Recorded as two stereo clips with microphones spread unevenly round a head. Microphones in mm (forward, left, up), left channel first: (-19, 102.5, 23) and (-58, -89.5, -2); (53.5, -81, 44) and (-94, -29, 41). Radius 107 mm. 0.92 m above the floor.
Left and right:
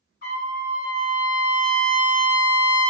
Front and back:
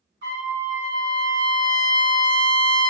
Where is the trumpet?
120° left, 2.5 m.